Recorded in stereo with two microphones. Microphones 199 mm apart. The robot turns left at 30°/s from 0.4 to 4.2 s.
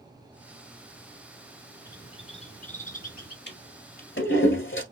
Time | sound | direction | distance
1.9 | a bird | 155° left | 2 m
3.5 | a toilet flushing | 60° left (ahead or behind) | 1.4 m